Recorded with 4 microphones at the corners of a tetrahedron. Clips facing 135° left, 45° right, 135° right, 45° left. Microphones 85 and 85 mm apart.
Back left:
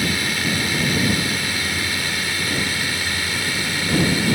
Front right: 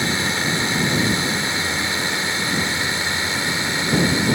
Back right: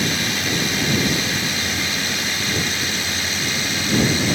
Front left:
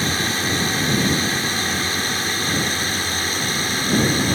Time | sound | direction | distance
0.0 | a drone | 10° left | ?